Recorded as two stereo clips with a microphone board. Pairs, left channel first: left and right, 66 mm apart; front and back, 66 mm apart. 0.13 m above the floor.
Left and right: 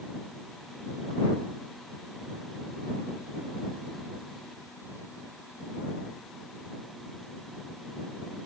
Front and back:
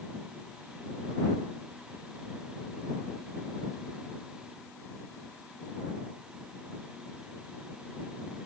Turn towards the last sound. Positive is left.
No sound to turn to.